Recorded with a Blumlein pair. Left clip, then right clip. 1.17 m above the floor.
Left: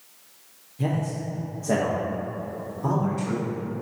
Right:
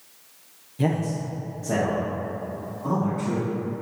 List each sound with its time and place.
0.8 s a man speaking: 20° right, 0.9 m; by 3.5 s 45° left, 2.5 m